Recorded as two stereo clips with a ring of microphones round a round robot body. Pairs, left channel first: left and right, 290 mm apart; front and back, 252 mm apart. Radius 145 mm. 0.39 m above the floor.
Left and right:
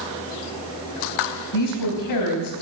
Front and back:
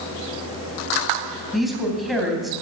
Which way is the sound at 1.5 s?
90° left.